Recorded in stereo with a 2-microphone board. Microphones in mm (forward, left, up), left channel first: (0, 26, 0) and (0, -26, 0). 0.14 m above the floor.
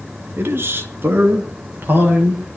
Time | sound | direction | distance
0.4 | a man speaking | 45° right (ahead or behind) | 2.5 m